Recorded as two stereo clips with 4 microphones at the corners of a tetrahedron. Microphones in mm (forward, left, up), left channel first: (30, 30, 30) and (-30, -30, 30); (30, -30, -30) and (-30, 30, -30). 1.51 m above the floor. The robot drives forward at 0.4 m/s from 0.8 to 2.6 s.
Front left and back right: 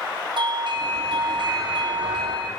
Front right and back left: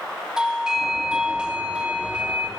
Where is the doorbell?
145° right, 3.5 m; by 2.5 s 150° right, 4.5 m.